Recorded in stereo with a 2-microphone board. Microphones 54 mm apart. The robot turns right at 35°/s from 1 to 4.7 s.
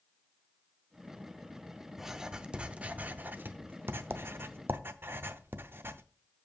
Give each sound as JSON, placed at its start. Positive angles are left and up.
{"t": 2.0, "sound": "writing", "side_deg": -5, "distance_m": 0.5}